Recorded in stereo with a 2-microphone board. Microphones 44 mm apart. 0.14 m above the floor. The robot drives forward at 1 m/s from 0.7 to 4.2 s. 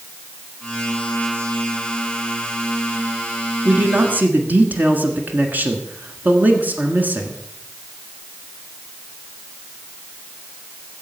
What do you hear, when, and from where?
3.6 s a man speaking: 35° right (ahead or behind), 1.5 m; by 7.4 s 40° right (ahead or behind), 1.4 m